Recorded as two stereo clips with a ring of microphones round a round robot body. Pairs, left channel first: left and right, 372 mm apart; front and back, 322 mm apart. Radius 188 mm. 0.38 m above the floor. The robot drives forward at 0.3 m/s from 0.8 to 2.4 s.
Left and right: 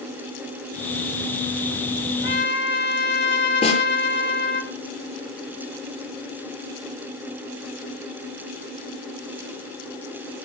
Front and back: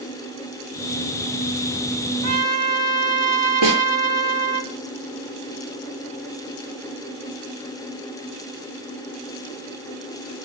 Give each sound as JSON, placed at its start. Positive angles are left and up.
{"t": 2.2, "sound": "a trumpet", "azimuth_deg": 150, "distance_m": 3.0}
{"t": 3.6, "sound": "a snare drum", "azimuth_deg": 165, "distance_m": 6.5}